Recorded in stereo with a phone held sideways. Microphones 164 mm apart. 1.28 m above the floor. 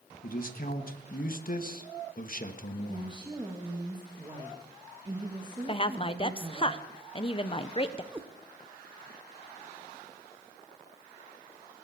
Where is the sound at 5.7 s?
35° left (ahead or behind), 0.8 m.